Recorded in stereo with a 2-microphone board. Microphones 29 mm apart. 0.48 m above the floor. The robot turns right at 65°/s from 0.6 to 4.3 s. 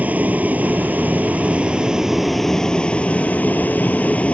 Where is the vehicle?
115° right; by 4.3 s 125° left.